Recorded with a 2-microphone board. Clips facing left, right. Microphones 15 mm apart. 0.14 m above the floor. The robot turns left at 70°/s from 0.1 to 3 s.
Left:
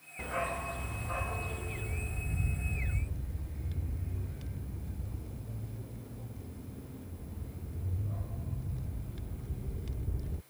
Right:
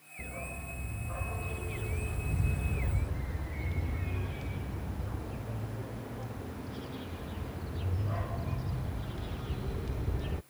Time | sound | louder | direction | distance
0.2 | a dog barking | left 7 dB | 95° left | ?